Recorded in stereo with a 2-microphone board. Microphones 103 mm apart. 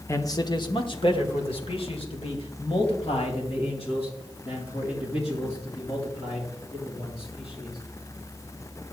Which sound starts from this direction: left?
A man speaking, at 0.1 s.